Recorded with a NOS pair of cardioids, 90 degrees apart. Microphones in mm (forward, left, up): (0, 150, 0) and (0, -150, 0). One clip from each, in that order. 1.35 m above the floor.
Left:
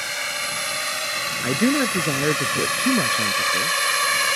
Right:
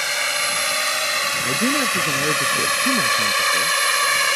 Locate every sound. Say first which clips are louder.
0.0 s a drone: right 5 dB; 40° right; by 4.4 s 15° right
1.4 s a man speaking: right 1 dB; 20° left